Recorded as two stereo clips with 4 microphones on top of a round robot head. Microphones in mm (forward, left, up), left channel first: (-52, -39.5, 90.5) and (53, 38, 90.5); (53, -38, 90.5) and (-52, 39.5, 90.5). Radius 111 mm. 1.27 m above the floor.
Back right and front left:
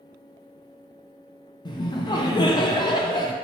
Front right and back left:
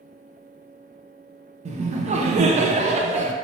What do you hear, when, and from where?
1.6 s laughter: 165° left, 0.5 m